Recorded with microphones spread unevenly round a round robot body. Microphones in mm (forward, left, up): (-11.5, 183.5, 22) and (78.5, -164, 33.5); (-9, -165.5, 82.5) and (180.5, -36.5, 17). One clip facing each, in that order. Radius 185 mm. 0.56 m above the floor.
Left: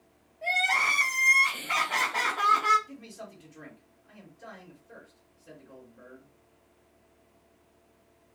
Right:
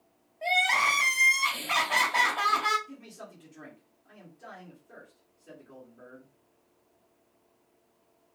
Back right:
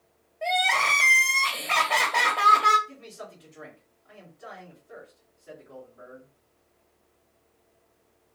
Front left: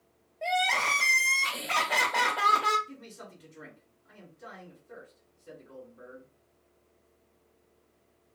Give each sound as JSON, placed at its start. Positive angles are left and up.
{"t": 0.4, "sound": "crying", "azimuth_deg": -20, "distance_m": 1.3}
{"t": 2.9, "sound": "a man speaking", "azimuth_deg": 40, "distance_m": 2.0}